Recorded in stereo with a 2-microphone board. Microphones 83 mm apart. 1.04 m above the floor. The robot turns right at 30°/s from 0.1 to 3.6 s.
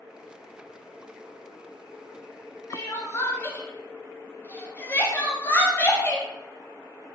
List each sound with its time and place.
2.7 s crying: 40° left (ahead or behind), 0.6 m; by 6.3 s 25° left (ahead or behind), 0.6 m